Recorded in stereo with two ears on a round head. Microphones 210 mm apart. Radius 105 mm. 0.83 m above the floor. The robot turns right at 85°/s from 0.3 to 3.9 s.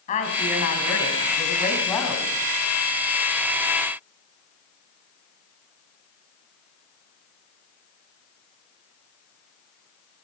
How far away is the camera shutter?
I don't hear a camera shutter.